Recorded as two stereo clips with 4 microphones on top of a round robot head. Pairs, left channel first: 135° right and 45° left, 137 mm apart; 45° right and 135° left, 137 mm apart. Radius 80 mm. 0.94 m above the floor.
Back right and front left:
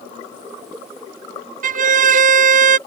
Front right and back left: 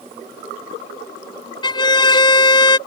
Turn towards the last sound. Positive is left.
turn(degrees=15)